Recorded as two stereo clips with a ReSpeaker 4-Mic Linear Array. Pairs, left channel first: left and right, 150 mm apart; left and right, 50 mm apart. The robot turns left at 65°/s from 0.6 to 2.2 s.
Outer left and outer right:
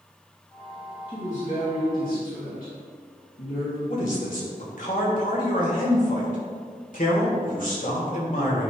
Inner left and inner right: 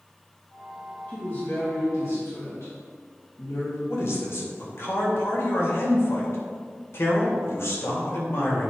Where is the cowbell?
No cowbell in this recording.